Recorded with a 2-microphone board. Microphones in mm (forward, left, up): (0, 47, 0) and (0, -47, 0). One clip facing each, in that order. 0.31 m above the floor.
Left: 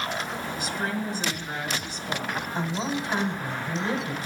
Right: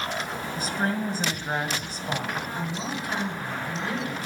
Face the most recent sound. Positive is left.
turn(degrees=25)  # may be behind; listen again after turning